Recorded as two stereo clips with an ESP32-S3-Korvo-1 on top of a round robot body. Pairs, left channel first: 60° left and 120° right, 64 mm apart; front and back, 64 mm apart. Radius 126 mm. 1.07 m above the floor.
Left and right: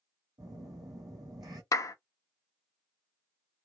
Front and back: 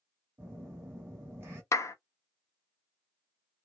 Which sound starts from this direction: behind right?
A phone buzzing, at 0.4 s.